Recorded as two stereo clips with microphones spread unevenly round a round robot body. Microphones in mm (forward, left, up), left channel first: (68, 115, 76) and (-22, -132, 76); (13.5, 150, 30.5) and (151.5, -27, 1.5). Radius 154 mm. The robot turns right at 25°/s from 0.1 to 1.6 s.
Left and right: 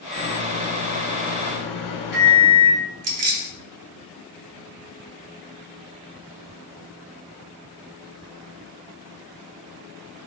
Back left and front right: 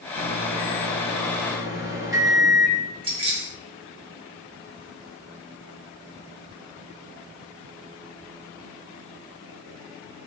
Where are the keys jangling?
115° right, 0.7 m.